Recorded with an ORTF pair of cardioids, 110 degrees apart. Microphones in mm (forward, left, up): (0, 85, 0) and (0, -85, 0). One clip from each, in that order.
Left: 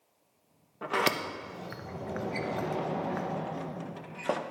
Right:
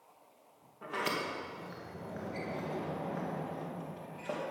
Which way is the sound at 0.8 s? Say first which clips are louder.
Left 6 dB; 55° left.